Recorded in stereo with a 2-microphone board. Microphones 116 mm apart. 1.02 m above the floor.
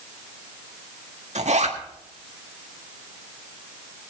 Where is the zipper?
75° right (ahead or behind), 1.7 m.